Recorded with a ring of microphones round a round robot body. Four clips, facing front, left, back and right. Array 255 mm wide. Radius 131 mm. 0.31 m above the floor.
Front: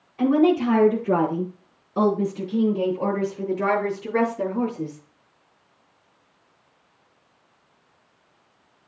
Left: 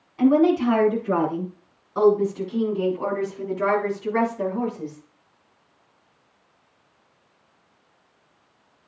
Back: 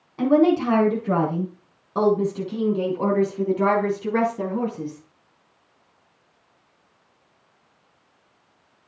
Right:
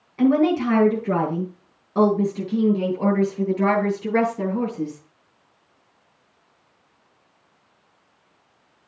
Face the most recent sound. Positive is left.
turn(degrees=-140)